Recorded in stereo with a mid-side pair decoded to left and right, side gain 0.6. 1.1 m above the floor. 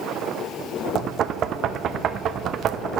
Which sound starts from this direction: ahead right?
Knocking, at 0.9 s.